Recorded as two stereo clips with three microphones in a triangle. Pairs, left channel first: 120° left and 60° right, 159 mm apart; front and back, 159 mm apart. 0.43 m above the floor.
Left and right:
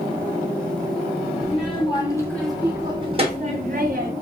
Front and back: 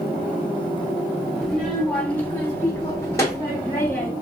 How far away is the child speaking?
About 0.9 m.